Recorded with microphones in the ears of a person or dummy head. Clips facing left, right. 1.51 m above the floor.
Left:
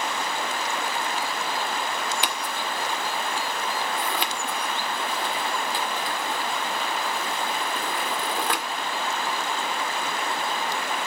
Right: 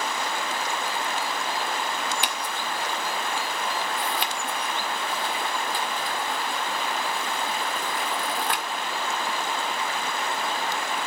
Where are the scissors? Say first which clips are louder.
Left 1 dB; 55° left (ahead or behind), 1.6 m.